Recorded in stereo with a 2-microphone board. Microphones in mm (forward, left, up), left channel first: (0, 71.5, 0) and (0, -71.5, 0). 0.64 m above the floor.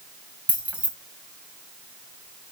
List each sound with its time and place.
0.5 s keys jangling: 10° right (ahead or behind), 3 m